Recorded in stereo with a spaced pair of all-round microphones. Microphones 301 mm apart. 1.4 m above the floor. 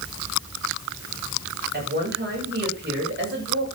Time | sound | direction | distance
1.7 | a woman speaking | 35° right (ahead or behind) | 7.5 m